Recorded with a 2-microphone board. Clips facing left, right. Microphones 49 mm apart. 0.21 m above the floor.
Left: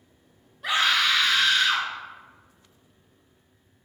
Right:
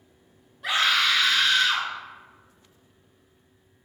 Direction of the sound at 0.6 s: Centre (ahead or behind).